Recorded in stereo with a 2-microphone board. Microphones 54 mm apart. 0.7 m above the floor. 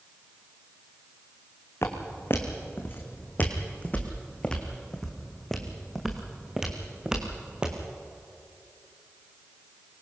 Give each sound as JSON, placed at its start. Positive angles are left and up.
{"t": 1.8, "sound": "footsteps", "side_deg": 50, "distance_m": 2.5}